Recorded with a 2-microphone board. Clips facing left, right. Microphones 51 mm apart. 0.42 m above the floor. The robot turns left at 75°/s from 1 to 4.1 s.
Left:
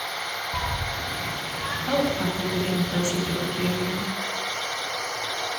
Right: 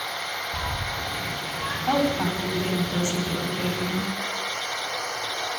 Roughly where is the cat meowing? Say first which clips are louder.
Left 1 dB; left.